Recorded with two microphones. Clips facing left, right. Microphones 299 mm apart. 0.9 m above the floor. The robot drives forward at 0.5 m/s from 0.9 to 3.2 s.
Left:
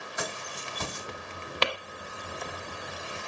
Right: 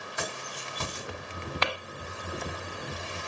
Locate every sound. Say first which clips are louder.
0.2 s keys jangling: left 1 dB; 40° right (ahead or behind), 1.7 m; by 1.1 s 45° right (ahead or behind), 1.6 m
1.6 s tapping: left 3 dB; 40° left (ahead or behind), 0.8 m; by 1.7 s 35° left (ahead or behind), 0.9 m